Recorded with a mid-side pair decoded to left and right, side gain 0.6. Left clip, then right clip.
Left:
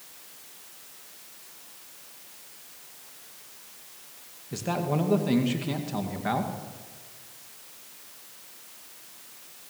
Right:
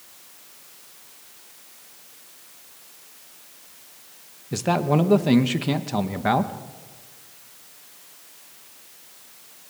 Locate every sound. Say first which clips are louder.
4.5 s a man speaking: right 7 dB; 40° right, 2 m